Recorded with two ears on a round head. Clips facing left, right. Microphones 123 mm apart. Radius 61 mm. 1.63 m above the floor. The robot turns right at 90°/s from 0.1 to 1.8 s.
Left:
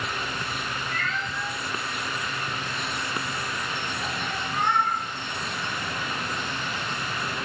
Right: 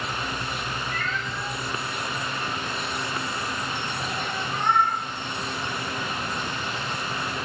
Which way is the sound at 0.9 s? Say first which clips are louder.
Even; 15° right (ahead or behind).